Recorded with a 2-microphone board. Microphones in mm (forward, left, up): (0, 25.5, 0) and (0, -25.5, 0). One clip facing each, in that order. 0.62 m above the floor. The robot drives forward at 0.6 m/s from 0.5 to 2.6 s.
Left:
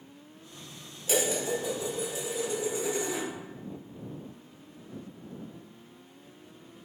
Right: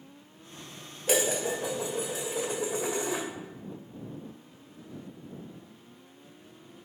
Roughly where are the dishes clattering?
Right.